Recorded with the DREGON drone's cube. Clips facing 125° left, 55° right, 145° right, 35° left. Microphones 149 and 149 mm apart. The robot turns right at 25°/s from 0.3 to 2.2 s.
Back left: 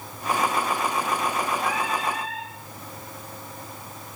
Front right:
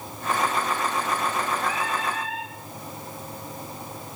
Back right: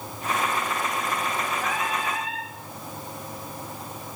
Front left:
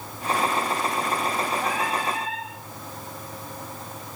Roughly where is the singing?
Left.